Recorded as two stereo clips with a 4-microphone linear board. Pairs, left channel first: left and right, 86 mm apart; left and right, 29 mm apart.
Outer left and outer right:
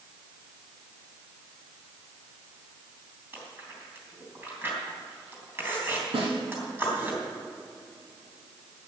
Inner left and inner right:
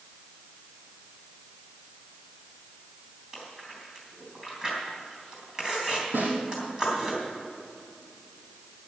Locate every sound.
3.3 s chewing: 25° right (ahead or behind), 3.5 m
6.1 s a snare drum: 85° right, 4.5 m